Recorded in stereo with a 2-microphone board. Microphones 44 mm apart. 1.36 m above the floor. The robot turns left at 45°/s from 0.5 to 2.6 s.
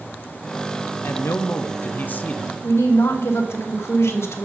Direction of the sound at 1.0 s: 100° left.